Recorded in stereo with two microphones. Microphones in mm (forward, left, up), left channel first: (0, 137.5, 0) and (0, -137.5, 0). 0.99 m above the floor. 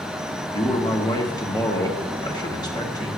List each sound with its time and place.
0.5 s a man speaking: 15° left (ahead or behind), 1.2 m